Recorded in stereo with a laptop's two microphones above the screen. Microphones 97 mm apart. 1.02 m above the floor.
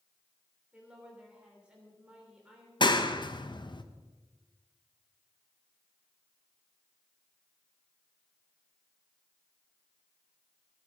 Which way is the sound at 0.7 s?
10° right (ahead or behind).